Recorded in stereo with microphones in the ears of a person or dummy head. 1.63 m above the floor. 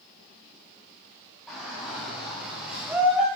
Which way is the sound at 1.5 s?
Centre (ahead or behind).